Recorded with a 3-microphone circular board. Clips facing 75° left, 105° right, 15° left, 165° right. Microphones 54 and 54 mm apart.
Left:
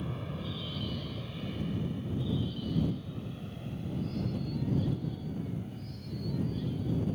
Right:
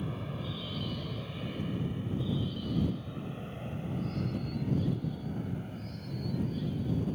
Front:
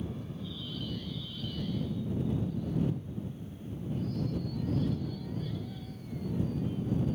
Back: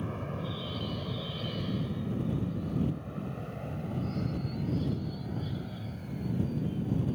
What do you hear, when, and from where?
0.0 s an aircraft: 165° left; by 7.2 s 145° right